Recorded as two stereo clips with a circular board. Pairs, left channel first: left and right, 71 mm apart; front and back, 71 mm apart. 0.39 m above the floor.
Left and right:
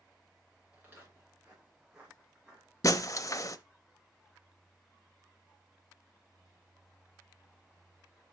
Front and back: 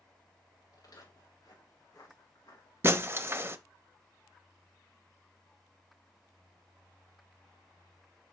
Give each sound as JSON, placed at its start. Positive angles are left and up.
{"t": 0.7, "sound": "footsteps", "azimuth_deg": -25, "distance_m": 5.0}
{"t": 2.8, "sound": "breaking glass", "azimuth_deg": 125, "distance_m": 0.6}